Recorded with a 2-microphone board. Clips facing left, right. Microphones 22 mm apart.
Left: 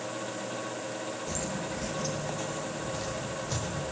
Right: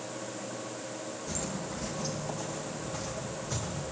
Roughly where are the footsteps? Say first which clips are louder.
Even; centre.